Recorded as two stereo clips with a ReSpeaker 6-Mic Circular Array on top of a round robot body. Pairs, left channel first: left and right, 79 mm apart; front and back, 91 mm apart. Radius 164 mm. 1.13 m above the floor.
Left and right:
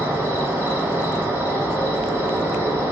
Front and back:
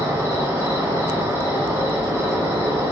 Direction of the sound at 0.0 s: 125° right.